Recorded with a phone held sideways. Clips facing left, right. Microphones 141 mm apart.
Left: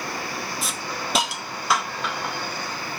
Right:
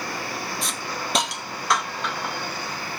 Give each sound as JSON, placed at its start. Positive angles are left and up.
{"t": 0.6, "sound": "a hiss", "side_deg": 5, "distance_m": 0.9}